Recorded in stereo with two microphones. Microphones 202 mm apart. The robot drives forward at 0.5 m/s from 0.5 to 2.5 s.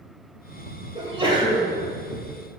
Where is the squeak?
No squeak in this recording.